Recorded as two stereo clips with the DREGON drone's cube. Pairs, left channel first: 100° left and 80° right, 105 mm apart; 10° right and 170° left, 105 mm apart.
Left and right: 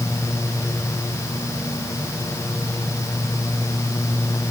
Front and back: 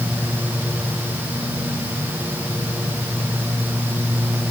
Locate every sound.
Only background noise.